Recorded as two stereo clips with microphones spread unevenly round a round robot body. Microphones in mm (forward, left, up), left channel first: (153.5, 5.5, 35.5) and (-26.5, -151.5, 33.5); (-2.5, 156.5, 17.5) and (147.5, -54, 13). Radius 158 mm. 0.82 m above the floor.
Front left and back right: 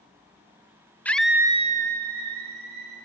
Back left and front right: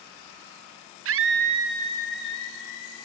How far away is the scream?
About 1.0 m.